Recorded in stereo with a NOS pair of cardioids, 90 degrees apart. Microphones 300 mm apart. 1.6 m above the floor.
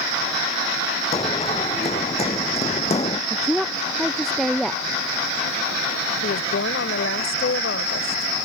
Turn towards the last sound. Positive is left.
turn(degrees=45)